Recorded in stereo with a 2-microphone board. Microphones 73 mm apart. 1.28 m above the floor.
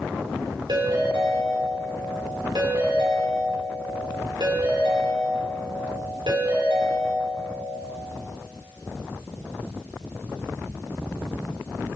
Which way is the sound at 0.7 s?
80° right.